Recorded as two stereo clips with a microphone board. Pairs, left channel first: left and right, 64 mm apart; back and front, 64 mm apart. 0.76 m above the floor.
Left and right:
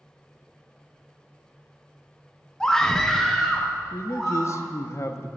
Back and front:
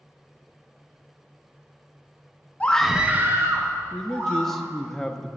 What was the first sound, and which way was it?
A scream, 155° left.